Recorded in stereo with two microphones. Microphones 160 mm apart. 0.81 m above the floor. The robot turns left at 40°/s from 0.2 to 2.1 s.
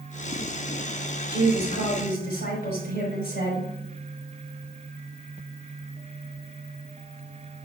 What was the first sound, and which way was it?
A woman speaking, 110° left.